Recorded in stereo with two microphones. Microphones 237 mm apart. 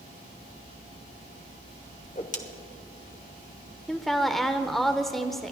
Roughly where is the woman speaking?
Centre.